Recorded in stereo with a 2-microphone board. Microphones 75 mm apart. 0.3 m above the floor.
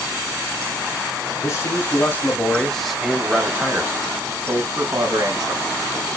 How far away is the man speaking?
About 1.4 m.